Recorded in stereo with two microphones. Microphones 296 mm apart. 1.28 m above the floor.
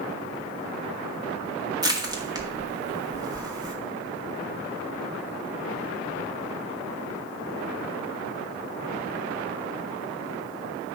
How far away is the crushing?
About 1.9 m.